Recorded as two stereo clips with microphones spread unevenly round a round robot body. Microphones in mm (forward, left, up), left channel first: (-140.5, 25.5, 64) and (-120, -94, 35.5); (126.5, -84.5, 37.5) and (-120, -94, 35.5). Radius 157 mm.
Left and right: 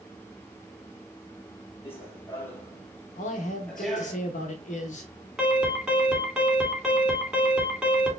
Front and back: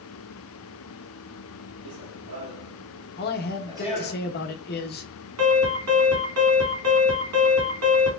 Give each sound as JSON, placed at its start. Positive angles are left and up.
{"t": 1.8, "sound": "running footsteps", "azimuth_deg": 165, "distance_m": 3.0}
{"t": 3.2, "sound": "a man speaking", "azimuth_deg": 55, "distance_m": 0.6}
{"t": 5.4, "sound": "an alarm", "azimuth_deg": -165, "distance_m": 2.5}